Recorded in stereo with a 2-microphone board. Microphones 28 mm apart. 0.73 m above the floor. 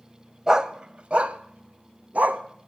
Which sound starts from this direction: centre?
A dog barking, at 0.5 s.